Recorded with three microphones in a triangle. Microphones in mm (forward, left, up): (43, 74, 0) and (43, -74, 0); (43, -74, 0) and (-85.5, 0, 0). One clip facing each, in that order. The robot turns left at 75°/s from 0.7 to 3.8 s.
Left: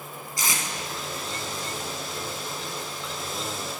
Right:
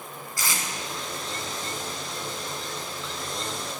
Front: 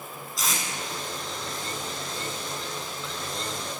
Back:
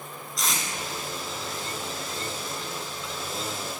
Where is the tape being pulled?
55° left, 1.1 m.